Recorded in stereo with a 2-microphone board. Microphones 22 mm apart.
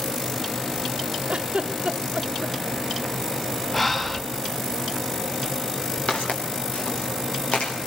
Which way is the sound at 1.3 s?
65° right (ahead or behind).